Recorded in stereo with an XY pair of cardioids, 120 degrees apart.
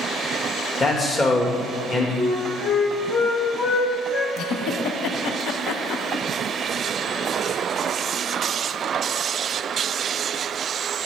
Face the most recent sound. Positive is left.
turn(degrees=65)